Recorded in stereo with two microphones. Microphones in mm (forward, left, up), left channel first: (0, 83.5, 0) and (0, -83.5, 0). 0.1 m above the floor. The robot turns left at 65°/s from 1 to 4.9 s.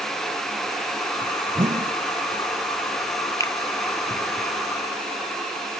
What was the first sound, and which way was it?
A whoosh, 30° right (ahead or behind).